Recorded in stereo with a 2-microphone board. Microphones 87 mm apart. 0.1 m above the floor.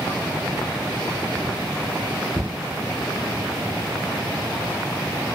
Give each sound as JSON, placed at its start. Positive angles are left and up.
{"t": 2.4, "sound": "a cupboard door", "side_deg": -25, "distance_m": 2.0}